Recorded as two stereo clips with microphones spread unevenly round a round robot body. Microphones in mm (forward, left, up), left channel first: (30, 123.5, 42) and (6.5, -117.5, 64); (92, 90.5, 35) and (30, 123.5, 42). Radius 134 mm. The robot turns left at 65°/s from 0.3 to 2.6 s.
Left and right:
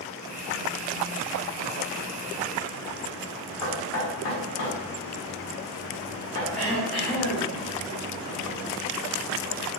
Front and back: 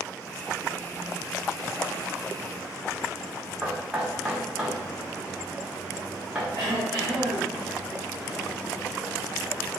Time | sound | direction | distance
3.6 | knocking | 75° left | 1.5 m
6.6 | throat clearing | 170° left | 1.1 m